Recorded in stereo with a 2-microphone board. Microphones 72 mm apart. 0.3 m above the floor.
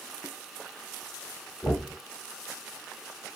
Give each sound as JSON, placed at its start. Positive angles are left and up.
{"t": 1.6, "sound": "knocking", "side_deg": 15, "distance_m": 1.1}